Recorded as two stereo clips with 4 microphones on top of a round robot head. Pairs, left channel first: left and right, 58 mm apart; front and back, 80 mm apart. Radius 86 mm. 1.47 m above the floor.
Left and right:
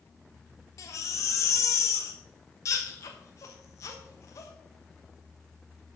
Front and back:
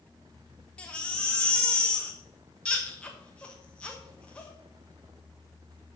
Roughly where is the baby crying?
Left.